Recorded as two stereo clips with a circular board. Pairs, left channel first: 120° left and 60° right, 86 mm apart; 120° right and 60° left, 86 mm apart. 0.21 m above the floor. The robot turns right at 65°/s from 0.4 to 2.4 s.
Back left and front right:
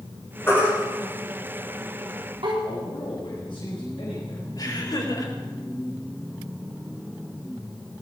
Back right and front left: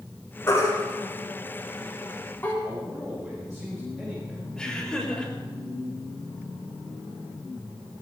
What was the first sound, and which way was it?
A baby crying, straight behind.